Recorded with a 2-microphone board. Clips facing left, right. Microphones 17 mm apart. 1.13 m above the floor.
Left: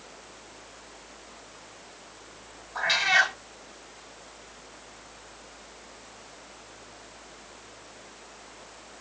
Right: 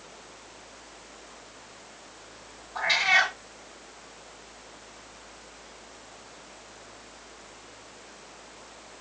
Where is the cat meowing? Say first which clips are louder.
Even; 10° left (ahead or behind), 2.5 m.